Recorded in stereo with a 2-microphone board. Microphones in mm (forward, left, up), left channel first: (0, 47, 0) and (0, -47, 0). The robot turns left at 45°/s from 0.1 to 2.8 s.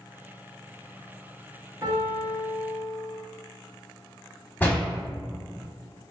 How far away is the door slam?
About 1.0 m.